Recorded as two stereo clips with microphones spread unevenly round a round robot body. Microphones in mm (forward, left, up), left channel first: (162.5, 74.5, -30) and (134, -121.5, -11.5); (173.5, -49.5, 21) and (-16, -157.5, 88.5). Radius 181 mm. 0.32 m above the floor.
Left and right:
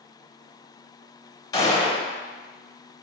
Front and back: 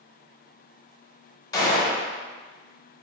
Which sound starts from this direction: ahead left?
A gunshot, at 1.5 s.